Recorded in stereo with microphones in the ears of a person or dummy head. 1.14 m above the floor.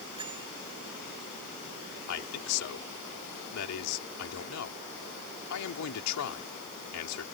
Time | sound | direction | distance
0.2 | a bell | 20° right (ahead or behind) | ?
2.1 | a man speaking | 85° left | ?